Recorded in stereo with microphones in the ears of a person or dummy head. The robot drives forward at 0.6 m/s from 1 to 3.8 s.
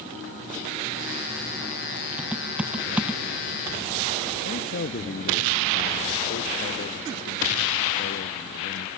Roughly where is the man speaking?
Left.